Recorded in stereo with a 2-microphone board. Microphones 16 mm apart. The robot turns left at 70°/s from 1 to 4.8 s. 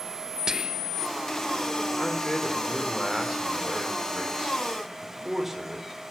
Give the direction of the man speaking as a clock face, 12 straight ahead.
10 o'clock.